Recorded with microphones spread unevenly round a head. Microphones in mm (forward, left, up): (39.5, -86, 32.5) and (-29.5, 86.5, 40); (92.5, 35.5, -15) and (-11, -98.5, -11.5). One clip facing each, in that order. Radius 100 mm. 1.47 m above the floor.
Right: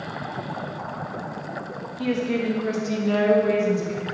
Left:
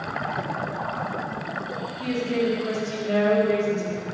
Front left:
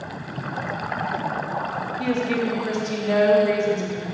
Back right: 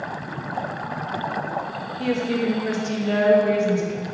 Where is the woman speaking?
70° right, 3 m.